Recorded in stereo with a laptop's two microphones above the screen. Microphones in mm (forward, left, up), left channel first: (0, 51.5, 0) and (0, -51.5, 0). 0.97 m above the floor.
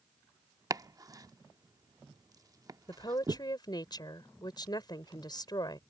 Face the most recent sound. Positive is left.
turn(degrees=40)  # may be behind; listen again after turning